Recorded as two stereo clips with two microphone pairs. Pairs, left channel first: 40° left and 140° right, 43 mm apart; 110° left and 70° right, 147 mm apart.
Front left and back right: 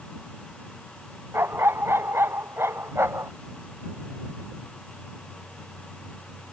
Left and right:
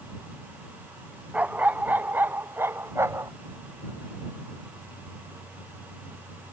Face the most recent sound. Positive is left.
turn(degrees=-145)